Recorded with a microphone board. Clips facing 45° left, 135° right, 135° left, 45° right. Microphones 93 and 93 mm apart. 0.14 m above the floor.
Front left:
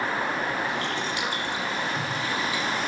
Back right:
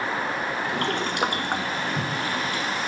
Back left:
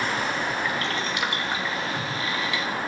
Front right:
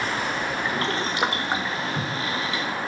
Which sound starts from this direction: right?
Boiling, at 0.7 s.